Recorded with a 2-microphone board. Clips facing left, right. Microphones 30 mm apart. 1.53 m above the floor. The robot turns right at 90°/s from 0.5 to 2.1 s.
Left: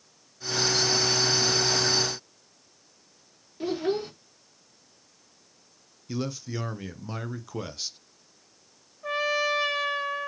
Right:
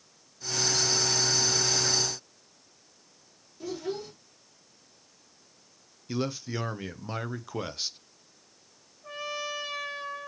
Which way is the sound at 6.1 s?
15° right (ahead or behind).